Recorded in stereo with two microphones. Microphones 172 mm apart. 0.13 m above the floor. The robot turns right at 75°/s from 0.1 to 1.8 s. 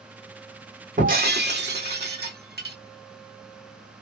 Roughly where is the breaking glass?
Behind right.